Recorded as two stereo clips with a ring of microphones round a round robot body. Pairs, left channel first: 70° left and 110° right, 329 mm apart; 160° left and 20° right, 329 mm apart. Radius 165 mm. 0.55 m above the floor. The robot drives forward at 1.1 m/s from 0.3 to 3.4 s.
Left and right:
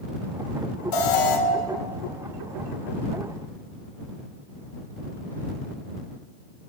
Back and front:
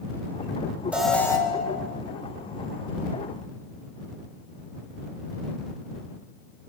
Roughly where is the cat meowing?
I don't hear a cat meowing.